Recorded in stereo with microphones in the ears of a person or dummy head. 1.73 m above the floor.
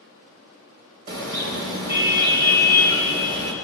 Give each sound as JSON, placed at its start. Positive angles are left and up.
{"t": 1.1, "sound": "a car horn", "side_deg": -65, "distance_m": 3.0}